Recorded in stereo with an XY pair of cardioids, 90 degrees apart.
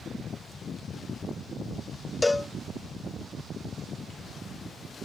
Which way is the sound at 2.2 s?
20° left.